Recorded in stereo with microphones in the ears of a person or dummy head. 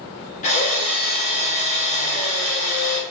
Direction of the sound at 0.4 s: 40° left (ahead or behind).